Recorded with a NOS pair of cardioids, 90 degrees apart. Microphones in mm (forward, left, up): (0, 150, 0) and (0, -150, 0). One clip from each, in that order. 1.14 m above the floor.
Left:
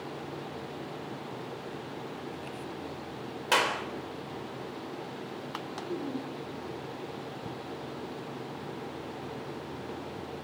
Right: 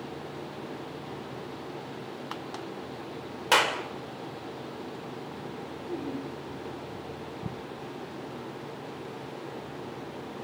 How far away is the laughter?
About 4 m.